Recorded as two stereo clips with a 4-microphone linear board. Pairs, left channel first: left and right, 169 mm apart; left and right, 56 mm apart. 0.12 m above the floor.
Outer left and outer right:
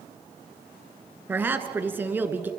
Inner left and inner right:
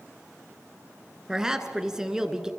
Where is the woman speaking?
10° right (ahead or behind), 1.3 m.